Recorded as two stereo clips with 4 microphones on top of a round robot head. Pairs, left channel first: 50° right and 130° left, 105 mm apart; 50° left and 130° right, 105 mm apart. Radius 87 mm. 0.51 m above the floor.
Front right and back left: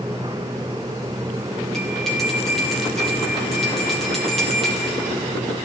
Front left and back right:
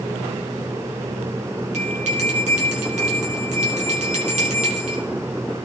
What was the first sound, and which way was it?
A bell, 135° right.